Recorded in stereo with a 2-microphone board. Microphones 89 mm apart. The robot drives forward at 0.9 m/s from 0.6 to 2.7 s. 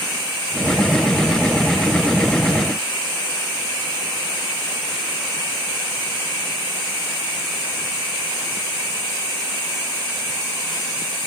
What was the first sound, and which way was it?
Only background noise.